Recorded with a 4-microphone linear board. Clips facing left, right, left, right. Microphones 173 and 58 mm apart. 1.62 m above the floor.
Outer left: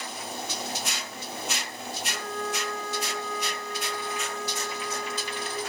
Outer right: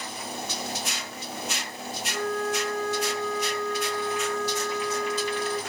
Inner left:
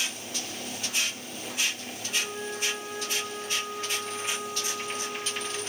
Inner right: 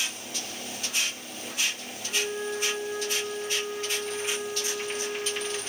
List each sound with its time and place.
2.1 s a flute: 15° left (ahead or behind), 4.5 m